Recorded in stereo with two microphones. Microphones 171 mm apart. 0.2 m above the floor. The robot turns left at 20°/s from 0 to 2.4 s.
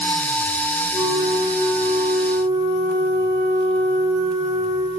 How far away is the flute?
About 8.5 m.